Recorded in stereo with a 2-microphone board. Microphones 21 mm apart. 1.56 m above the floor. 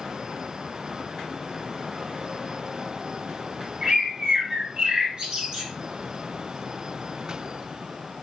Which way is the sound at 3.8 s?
35° right (ahead or behind).